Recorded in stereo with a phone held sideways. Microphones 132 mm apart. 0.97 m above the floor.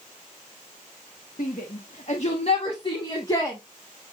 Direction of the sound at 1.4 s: 70° left (ahead or behind).